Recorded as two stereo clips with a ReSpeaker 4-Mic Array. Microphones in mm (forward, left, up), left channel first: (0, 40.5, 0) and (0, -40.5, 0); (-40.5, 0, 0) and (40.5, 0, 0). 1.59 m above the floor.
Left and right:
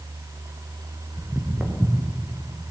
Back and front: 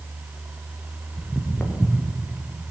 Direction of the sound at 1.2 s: 95° right.